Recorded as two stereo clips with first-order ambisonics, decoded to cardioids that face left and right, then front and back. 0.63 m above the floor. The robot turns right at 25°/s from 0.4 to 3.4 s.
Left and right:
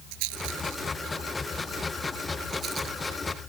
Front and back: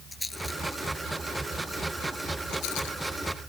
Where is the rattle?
85° right; by 3.0 s 20° right.